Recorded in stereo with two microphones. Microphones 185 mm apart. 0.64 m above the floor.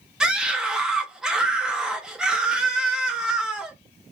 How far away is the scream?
About 0.8 m.